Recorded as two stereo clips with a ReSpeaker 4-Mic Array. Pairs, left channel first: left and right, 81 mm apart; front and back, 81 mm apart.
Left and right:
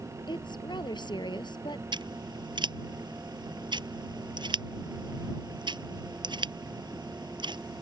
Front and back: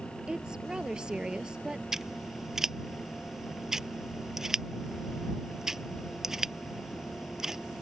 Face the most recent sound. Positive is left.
turn(degrees=-95)